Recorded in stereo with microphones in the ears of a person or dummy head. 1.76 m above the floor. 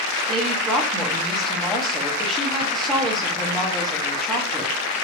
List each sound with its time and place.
0.3 s a woman speaking: 5° left (ahead or behind), 1.2 m